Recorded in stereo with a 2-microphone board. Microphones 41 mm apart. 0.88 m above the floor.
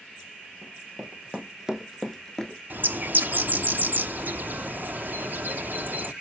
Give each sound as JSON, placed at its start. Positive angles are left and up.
{"t": 0.6, "sound": "running footsteps", "side_deg": -30, "distance_m": 1.7}
{"t": 2.7, "sound": "a bird", "side_deg": -55, "distance_m": 0.6}